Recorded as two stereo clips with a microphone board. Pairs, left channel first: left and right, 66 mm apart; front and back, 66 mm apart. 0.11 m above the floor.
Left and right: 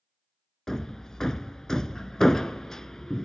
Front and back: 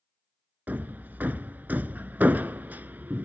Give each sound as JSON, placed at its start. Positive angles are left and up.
{"t": 0.7, "sound": "hammering", "azimuth_deg": 165, "distance_m": 0.6}